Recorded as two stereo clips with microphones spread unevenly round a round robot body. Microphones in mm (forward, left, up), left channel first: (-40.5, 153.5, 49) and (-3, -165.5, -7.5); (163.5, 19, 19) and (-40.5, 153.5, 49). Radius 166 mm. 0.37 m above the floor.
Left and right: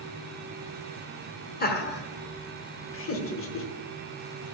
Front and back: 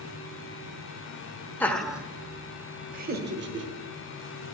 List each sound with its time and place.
1.6 s laughter: 35° left, 1.1 m; by 3.7 s 145° left, 1.2 m